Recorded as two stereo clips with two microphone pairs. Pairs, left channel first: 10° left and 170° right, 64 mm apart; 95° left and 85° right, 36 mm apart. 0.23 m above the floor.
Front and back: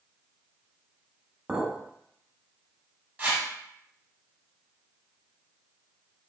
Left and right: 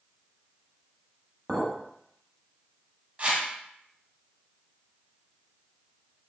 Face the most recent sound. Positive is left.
turn(degrees=-115)